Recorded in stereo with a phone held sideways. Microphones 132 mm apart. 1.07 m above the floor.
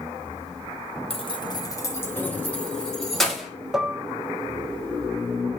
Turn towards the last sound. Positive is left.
turn(degrees=-5)  # may be behind; listen again after turning